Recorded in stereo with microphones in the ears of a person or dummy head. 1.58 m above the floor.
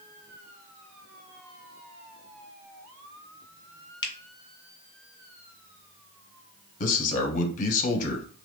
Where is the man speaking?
45° left (ahead or behind), 0.7 m.